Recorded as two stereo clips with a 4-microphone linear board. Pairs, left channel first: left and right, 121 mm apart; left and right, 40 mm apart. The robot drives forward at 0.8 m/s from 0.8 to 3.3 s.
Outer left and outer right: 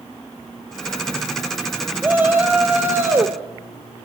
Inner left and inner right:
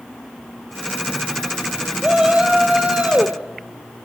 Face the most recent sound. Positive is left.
turn(degrees=-25)  # may be behind; listen again after turning